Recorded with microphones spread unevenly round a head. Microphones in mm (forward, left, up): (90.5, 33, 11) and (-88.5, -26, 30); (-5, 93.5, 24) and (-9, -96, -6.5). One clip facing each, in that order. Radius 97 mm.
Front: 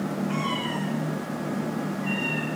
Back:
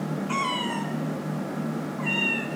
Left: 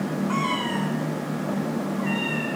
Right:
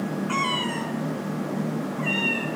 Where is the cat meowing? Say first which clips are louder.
Front 1 dB, left 2 dB; 145° right, 4 m.